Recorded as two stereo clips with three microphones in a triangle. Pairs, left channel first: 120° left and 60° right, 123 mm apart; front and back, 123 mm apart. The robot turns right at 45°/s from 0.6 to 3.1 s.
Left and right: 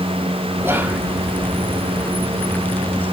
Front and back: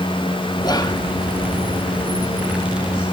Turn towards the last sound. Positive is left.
turn(degrees=105)